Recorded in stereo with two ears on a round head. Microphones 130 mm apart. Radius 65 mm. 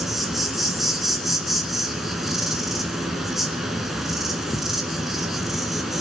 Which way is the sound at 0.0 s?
Centre (ahead or behind).